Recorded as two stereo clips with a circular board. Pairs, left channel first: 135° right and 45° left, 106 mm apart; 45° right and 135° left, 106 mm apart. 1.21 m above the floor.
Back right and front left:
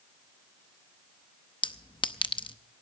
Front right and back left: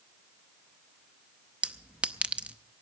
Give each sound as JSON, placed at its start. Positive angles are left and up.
{"t": 1.6, "sound": "a clink", "azimuth_deg": -150, "distance_m": 0.7}